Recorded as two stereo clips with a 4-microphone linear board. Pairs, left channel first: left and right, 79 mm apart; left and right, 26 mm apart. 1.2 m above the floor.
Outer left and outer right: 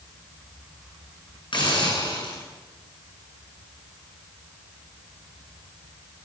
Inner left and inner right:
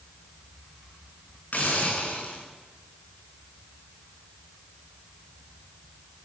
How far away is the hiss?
About 10 m.